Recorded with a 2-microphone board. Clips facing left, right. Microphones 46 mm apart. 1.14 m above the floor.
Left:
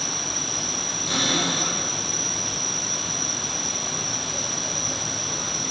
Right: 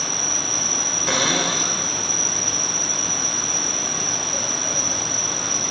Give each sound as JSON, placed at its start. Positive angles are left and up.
{"t": 0.0, "sound": "an insect", "side_deg": -90, "distance_m": 6.0}
{"t": 1.1, "sound": "a cupboard door", "side_deg": -85, "distance_m": 4.5}